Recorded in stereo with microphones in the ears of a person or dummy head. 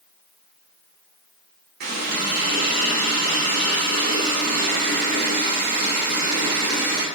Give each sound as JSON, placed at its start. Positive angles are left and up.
{"t": 1.8, "sound": "a running tap", "side_deg": -55, "distance_m": 3.0}